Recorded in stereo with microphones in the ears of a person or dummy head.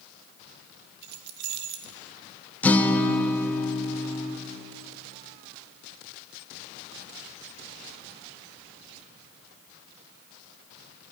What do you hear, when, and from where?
1.0 s keys jangling: 60° right (ahead or behind), 1.0 m
2.6 s a guitar: 10° left (ahead or behind), 0.8 m